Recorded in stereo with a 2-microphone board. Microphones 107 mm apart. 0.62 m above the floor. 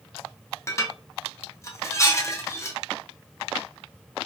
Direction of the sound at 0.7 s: 25° left (ahead or behind).